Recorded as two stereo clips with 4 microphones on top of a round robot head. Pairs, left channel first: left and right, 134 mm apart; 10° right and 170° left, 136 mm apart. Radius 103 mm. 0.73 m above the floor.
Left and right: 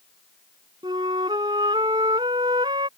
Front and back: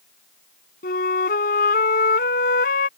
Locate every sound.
0.8 s a flute: 20° right